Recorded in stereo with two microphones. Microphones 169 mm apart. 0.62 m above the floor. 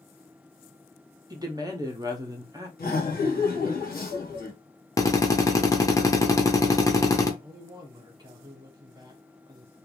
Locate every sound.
1.3 s a woman speaking: 25° right (ahead or behind), 0.7 m
2.8 s laughter: 60° left (ahead or behind), 1.3 m
5.0 s a drill: 20° left (ahead or behind), 0.6 m
7.4 s a man speaking: 25° right (ahead or behind), 1.0 m